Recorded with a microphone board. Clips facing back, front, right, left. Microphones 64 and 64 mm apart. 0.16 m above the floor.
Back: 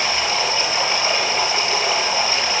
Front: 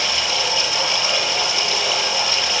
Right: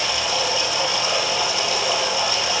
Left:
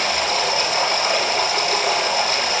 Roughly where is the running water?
Behind left.